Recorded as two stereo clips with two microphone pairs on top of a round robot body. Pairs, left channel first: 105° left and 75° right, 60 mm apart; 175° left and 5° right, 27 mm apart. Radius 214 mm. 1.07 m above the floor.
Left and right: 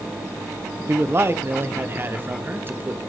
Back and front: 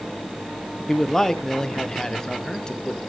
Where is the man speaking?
115° right, 1.3 m; by 3.0 s 130° right, 2.5 m.